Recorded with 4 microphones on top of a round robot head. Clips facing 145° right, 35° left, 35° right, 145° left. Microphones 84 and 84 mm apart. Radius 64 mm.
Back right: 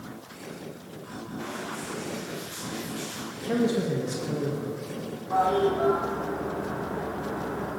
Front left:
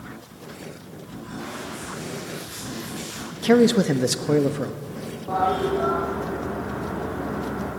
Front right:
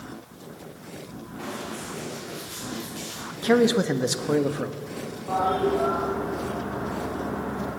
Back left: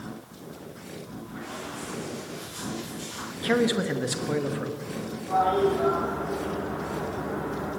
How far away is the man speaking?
About 1.3 m.